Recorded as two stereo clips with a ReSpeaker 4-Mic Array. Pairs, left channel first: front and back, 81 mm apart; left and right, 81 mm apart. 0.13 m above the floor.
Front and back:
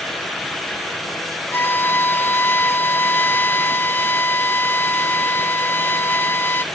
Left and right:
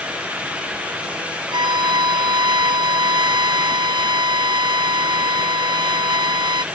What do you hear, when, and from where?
1.5 s a violin: 65° right